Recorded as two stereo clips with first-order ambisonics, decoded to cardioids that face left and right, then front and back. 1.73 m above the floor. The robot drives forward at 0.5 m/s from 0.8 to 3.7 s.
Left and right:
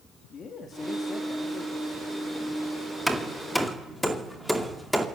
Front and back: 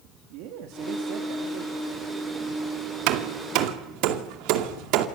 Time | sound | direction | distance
0.3 | a man speaking | 155° left | 3.5 m
3.1 | hammering | straight behind | 2 m